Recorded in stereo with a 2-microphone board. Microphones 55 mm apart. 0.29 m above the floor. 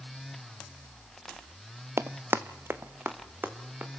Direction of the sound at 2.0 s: 50° right (ahead or behind).